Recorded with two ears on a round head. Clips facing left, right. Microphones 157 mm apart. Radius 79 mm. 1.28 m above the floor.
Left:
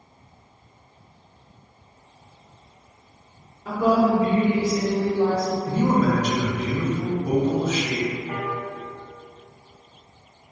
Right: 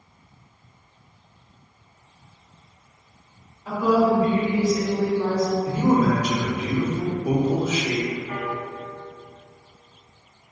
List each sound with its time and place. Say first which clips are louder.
3.6 s a woman speaking: even; 55° left (ahead or behind), 1.3 m; by 5.6 s 5° right (ahead or behind), 0.6 m
5.7 s a man speaking: even; 5° right (ahead or behind), 0.5 m
8.3 s a piano: even; 40° left (ahead or behind), 1.8 m